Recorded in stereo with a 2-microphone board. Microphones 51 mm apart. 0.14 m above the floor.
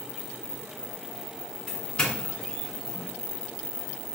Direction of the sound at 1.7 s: 20° left (ahead or behind).